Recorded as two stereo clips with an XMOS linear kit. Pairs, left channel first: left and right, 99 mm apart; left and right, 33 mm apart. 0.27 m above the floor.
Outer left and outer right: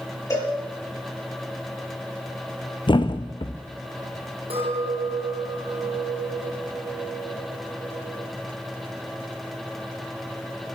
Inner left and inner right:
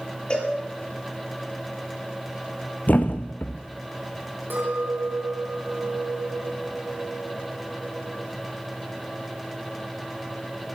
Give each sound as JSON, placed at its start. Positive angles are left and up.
{"t": 0.3, "sound": "a cowbell", "side_deg": 35, "distance_m": 6.0}
{"t": 2.9, "sound": "a thud", "side_deg": 55, "distance_m": 1.2}
{"t": 4.5, "sound": "a clink", "side_deg": -80, "distance_m": 6.0}